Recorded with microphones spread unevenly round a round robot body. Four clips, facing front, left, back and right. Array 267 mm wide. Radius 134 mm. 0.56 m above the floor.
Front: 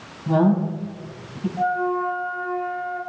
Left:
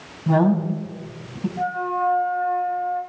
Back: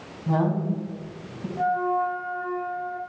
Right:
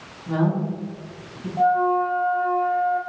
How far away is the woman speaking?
About 3.5 m.